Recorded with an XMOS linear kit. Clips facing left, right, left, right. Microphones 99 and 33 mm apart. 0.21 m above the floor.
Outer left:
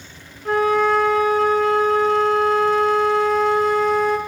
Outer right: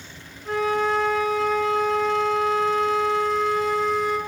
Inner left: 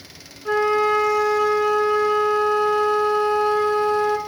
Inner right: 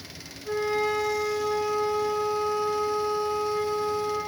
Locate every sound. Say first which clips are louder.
0.5 s a flute: outer left 5 dB, inner left 8 dB; 60° left (ahead or behind), 0.8 m